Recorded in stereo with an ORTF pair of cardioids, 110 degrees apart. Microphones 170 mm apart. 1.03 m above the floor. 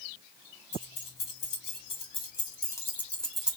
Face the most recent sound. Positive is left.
turn(degrees=-10)